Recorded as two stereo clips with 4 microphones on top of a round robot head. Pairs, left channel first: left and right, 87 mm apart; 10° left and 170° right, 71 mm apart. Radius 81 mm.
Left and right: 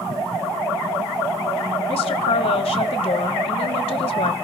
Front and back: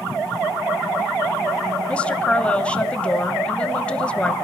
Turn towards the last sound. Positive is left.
turn(degrees=80)